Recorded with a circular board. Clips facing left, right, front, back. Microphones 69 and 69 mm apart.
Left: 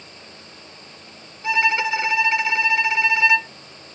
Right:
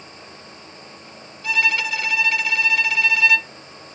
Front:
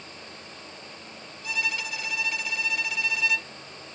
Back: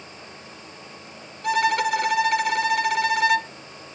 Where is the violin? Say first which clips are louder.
Left 2 dB, back 12 dB; 155° left.